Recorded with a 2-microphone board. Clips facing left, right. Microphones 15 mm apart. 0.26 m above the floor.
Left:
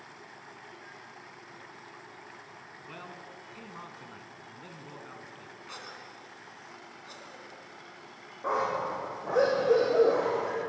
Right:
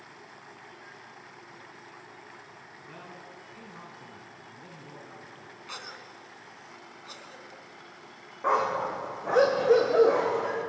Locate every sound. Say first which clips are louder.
2.9 s a man speaking: left 1 dB; 30° left (ahead or behind), 3 m
5.7 s a cough: right 3 dB; 25° right (ahead or behind), 2.5 m
8.4 s a dog barking: right 3 dB; 45° right (ahead or behind), 4.5 m